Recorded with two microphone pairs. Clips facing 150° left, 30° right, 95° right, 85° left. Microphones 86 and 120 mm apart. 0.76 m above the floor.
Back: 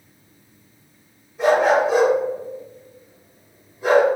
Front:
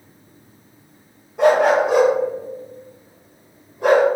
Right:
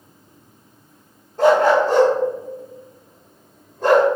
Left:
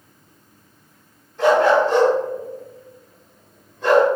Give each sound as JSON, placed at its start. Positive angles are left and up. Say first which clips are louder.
{"t": 1.4, "sound": "a dog barking", "louder": "front 2 dB, right 1 dB", "azimuth_deg": -50, "distance_m": 1.5}